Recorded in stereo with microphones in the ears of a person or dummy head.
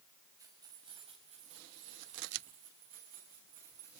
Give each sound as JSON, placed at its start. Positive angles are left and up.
{"t": 0.4, "sound": "keys jangling", "side_deg": -20, "distance_m": 4.5}